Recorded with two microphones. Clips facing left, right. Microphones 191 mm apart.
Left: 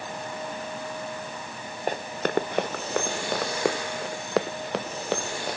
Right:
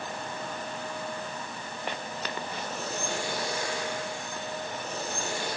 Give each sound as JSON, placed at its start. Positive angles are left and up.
{"t": 1.9, "sound": "running footsteps", "side_deg": 45}